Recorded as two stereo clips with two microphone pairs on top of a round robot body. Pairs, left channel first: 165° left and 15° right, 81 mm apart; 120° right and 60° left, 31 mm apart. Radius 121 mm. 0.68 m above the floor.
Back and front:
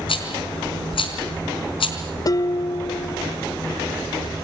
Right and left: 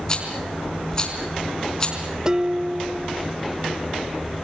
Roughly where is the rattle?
Behind.